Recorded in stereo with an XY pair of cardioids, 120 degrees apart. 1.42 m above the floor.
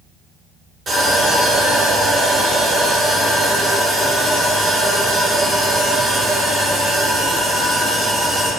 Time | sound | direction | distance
0.9 | sawing | 30° right | 1.0 m